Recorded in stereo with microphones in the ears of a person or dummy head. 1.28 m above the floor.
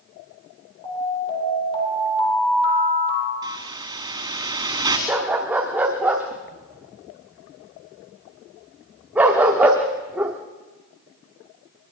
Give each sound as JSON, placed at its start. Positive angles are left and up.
{"t": 0.8, "sound": "an alarm", "side_deg": 25, "distance_m": 7.5}
{"t": 3.4, "sound": "a hiss", "side_deg": -20, "distance_m": 2.0}
{"t": 5.1, "sound": "a dog barking", "side_deg": -5, "distance_m": 0.8}